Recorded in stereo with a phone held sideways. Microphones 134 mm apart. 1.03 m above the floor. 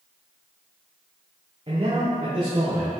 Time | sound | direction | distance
1.7 | a man speaking | 45° right (ahead or behind) | 2.5 m